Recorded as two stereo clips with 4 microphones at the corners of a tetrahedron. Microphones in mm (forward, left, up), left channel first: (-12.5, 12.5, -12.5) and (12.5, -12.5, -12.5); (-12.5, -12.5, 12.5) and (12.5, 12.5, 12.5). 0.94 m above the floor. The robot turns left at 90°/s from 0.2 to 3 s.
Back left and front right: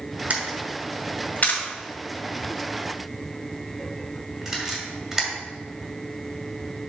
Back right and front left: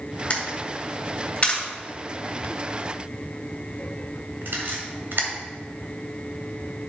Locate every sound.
0.3 s a camera shutter: 85° right, 1.8 m; by 5.3 s 30° left, 1.8 m